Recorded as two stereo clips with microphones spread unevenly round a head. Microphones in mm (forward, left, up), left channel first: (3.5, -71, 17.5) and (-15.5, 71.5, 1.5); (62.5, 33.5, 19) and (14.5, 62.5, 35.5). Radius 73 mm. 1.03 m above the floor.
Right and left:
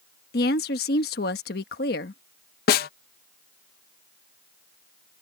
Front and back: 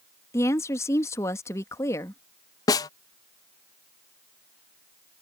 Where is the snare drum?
55° right.